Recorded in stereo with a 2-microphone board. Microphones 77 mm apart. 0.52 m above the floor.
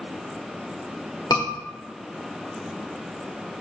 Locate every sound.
1.3 s a scream: 60° left (ahead or behind), 1.5 m